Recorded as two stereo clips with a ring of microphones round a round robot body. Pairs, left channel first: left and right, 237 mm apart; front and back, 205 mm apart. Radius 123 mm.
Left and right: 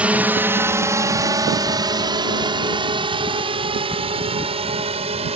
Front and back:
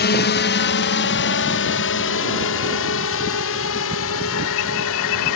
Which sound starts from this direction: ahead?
A drone, at 0.0 s.